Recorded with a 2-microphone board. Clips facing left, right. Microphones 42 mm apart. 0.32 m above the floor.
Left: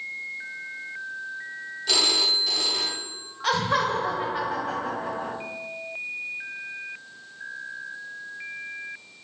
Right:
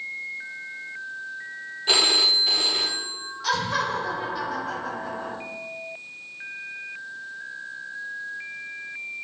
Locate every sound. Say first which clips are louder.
1.9 s a phone ringing: right 3 dB; 25° right (ahead or behind), 0.9 m
3.4 s laughter: left 2 dB; 35° left (ahead or behind), 1.8 m